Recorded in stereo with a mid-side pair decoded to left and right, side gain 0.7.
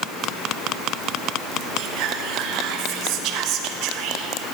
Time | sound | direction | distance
1.8 | whispering | 60° right | 1.2 m